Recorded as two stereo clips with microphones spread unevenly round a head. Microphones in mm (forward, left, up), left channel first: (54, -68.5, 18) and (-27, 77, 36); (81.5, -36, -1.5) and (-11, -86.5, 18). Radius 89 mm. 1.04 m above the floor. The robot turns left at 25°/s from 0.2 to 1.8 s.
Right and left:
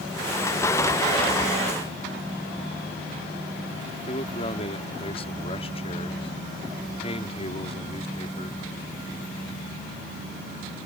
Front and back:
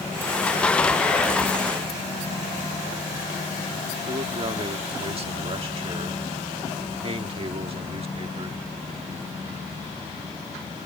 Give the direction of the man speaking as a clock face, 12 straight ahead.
4 o'clock.